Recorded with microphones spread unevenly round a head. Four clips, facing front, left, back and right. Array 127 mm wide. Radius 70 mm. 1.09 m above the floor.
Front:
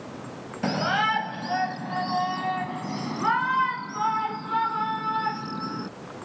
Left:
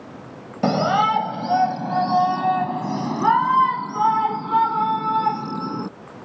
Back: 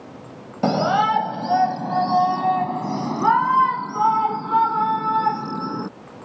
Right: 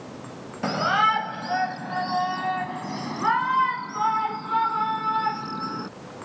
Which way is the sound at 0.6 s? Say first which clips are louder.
Left 4 dB, back 7 dB; 165° left.